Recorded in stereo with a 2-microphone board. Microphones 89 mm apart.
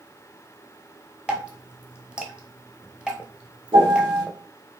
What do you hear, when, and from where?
1.3 s dripping: 10° right (ahead or behind), 1.0 m
3.7 s a piano: 65° right (ahead or behind), 3 m